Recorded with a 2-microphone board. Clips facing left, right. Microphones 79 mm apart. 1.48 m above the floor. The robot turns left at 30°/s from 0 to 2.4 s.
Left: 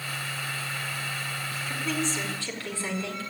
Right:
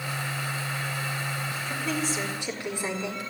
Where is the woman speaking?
5° left (ahead or behind), 4.5 m; by 3.3 s 20° right (ahead or behind), 4.5 m.